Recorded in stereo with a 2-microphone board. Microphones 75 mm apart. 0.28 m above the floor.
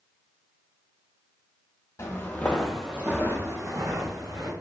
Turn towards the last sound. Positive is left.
turn(degrees=-55)  # may be behind; listen again after turning